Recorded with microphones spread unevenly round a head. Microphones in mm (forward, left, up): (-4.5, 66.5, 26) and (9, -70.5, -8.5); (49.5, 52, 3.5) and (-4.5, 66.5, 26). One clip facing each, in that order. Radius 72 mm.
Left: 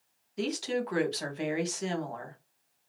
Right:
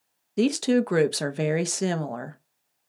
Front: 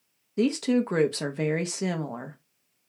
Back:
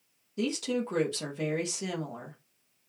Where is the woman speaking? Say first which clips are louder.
Right 10 dB, front 7 dB; 65° right, 0.7 m.